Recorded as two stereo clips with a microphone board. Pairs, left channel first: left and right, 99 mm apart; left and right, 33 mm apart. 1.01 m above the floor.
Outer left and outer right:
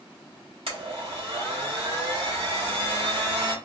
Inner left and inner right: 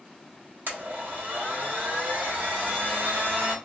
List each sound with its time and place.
0.7 s a blender: 70° right (ahead or behind), 1.2 m